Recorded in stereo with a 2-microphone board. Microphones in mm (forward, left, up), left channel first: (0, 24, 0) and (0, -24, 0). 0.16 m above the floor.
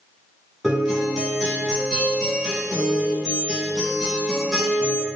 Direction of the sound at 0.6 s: Centre (ahead or behind).